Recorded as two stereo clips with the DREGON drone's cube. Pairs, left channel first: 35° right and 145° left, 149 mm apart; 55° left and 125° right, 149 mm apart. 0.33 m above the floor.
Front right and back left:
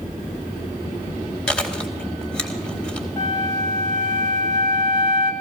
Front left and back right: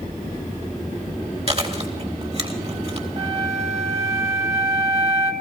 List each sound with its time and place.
1.5 s chewing: 115° right, 2 m
3.2 s a flute: 90° right, 2 m